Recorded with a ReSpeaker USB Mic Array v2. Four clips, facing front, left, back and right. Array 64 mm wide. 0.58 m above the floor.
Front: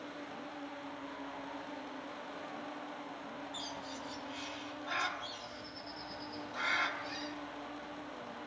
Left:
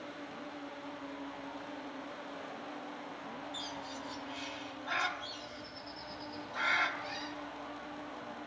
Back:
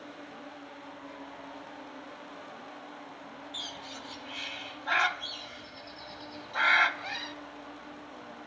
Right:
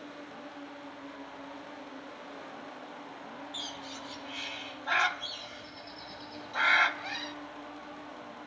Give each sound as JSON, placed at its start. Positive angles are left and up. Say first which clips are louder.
{"t": 3.5, "sound": "a bird", "louder": "even, back 1 dB", "azimuth_deg": -150, "distance_m": 1.3}